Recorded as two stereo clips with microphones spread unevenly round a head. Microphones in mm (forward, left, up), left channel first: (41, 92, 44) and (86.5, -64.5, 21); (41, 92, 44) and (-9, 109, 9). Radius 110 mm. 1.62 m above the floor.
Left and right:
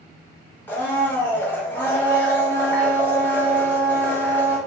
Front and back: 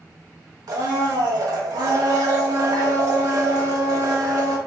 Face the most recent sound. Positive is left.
turn(degrees=-175)